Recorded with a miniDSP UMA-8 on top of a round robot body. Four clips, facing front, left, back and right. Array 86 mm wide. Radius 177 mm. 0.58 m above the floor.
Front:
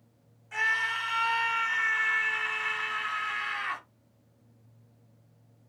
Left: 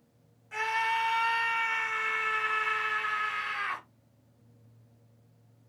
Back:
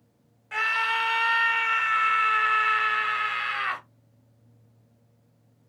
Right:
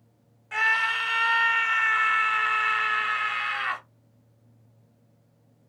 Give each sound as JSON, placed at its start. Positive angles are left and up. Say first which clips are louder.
{"t": 0.5, "sound": "a scream", "louder": "right 4 dB, back 3 dB", "azimuth_deg": -140, "distance_m": 1.5}